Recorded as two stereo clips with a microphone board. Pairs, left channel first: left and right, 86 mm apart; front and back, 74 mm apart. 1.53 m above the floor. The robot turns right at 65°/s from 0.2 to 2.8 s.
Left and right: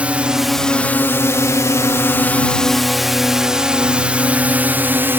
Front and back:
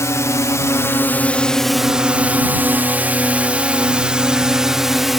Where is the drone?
20° right; by 5.2 s 95° right.